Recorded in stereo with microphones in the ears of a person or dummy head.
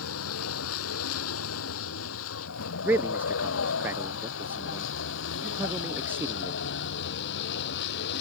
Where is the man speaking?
15° right (ahead or behind).